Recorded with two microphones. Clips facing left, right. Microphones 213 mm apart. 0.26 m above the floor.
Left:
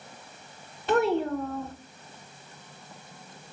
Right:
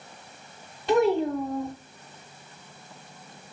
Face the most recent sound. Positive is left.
turn(degrees=0)  # may be behind; listen again after turning